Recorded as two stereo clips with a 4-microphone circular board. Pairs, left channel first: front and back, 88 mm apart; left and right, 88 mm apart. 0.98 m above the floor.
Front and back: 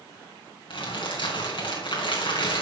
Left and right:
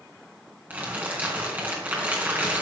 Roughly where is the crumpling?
Ahead.